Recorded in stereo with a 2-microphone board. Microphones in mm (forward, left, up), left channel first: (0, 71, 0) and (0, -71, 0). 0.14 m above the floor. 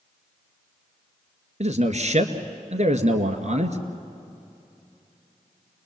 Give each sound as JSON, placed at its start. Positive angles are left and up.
{"t": 1.6, "sound": "a man speaking", "side_deg": -55, "distance_m": 1.8}